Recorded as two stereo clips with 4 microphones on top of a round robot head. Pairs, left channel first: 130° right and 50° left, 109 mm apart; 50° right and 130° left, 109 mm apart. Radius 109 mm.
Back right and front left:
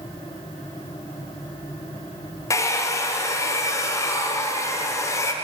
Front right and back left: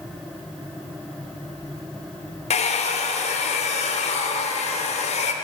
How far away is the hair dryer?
About 0.7 m.